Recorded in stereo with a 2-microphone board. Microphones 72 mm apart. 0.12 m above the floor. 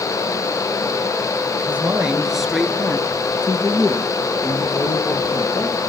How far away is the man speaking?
About 2.5 m.